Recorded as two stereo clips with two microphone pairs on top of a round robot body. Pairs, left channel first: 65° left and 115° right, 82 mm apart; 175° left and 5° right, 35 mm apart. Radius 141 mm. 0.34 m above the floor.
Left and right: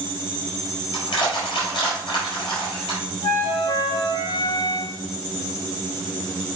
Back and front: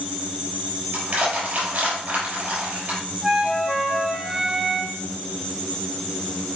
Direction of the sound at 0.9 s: 35° left.